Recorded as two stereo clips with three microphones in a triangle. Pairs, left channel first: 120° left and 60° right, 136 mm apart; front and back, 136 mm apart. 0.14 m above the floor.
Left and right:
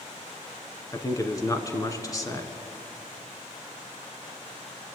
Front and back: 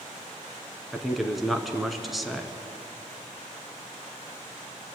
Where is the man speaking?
90° left, 1.1 m.